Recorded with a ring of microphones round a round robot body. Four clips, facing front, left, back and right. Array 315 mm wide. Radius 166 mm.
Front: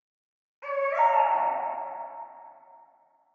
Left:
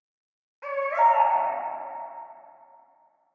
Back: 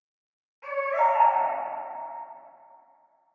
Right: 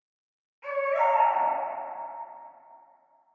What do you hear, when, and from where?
0.6 s a baby crying: 65° left, 0.5 m